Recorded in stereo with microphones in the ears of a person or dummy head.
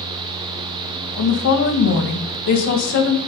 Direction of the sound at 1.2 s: 60° left (ahead or behind).